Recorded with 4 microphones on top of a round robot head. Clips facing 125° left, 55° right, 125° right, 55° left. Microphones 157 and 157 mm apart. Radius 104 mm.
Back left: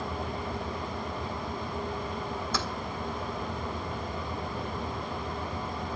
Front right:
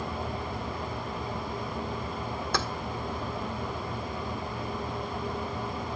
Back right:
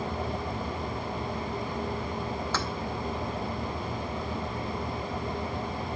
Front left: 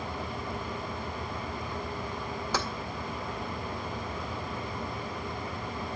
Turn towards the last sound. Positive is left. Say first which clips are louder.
# front right 4 dB, front left 3 dB
turn(degrees=-20)